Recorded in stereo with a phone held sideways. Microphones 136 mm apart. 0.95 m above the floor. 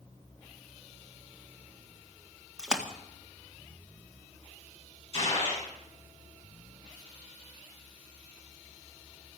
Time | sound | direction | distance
2.6 | a splash | 5° right (ahead or behind) | 1.8 m
5.1 | a gunshot | 40° left (ahead or behind) | 7.5 m